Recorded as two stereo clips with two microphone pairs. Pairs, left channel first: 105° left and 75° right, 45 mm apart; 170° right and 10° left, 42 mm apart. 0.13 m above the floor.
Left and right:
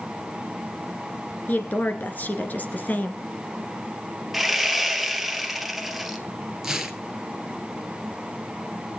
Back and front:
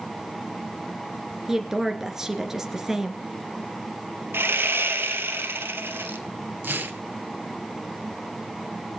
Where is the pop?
No pop in this recording.